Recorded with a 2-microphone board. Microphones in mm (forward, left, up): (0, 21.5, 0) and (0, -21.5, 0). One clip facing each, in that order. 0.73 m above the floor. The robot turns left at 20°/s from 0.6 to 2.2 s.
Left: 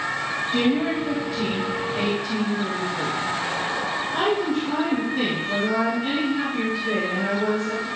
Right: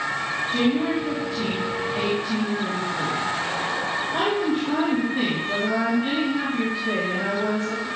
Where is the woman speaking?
25° left, 5 m; by 7.9 s 10° right, 5 m.